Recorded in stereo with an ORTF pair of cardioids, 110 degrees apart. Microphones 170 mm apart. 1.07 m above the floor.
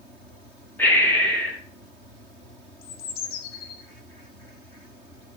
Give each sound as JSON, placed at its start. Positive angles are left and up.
{"t": 0.8, "sound": "breathing", "azimuth_deg": 10, "distance_m": 1.1}
{"t": 2.8, "sound": "a bird", "azimuth_deg": 65, "distance_m": 0.6}